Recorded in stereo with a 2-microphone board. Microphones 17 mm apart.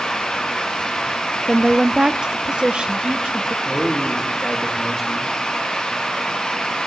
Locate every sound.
1.5 s a woman speaking: 20° right (ahead or behind), 0.5 m; by 3.5 s 70° right (ahead or behind), 1.5 m
3.6 s a man speaking: centre (ahead or behind), 3.5 m